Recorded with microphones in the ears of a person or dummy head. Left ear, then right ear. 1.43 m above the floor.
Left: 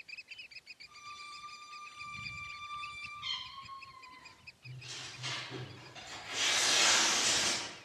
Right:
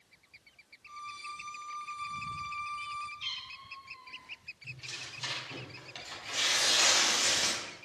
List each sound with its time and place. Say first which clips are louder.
0.9 s a violin: right 8 dB; 55° right (ahead or behind), 1.5 m
3.2 s a cat meowing: right 1 dB; 60° right (ahead or behind), 3 m
4.6 s tearing paper: right 3 dB; 45° right (ahead or behind), 3 m